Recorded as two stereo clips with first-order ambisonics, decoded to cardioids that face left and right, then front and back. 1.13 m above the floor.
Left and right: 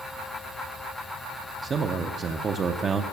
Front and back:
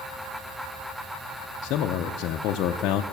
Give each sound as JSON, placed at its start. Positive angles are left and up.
{"t": 1.6, "sound": "a man speaking", "azimuth_deg": -25, "distance_m": 0.5}